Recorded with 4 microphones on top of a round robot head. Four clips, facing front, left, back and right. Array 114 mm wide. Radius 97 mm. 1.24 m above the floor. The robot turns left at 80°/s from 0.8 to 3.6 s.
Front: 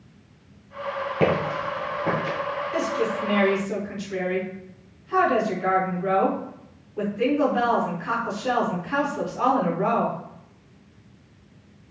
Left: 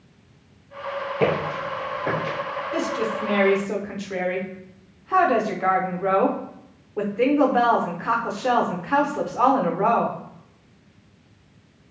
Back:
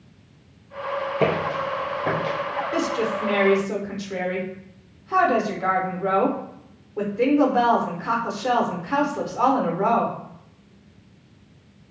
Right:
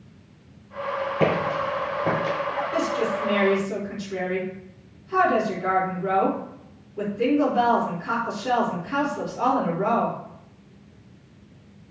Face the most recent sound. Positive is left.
turn(degrees=115)